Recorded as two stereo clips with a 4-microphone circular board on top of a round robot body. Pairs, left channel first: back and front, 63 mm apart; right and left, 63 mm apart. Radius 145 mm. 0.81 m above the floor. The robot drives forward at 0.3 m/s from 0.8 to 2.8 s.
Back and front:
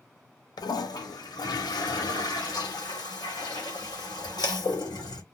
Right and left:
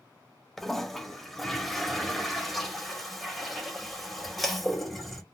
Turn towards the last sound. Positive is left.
turn(degrees=180)